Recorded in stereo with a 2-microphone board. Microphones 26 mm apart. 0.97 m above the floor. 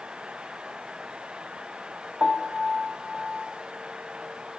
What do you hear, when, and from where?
2.2 s a piano: 25° left (ahead or behind), 0.8 m